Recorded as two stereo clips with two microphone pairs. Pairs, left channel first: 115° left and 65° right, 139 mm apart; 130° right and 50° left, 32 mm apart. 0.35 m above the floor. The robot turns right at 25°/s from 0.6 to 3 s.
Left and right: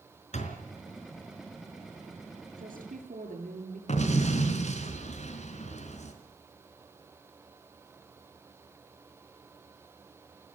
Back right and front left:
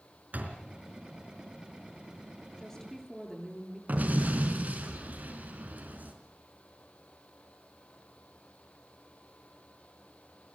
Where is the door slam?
80° left, 4 m; by 0.6 s 85° left, 4 m.